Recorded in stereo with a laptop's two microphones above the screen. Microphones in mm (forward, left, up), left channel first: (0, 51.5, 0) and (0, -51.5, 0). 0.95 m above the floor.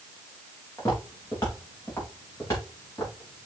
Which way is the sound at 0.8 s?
30° left (ahead or behind).